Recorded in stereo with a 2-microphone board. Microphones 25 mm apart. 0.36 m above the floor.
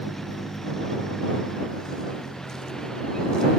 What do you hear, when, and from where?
0.0 s a vehicle: 15° left (ahead or behind); by 3.6 s 25° left (ahead or behind)